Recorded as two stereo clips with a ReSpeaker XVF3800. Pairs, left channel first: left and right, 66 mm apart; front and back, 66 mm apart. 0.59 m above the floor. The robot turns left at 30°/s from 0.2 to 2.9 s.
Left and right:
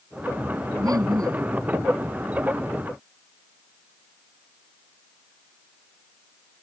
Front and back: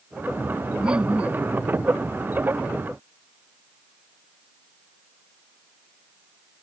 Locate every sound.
0.8 s laughter: 100° right; by 1.5 s 120° right